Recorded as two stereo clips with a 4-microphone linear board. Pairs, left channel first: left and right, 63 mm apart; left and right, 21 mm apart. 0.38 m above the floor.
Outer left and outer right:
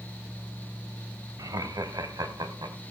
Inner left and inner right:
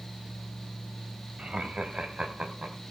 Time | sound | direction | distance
1.4 | laughter | 60° right (ahead or behind) | 1.7 m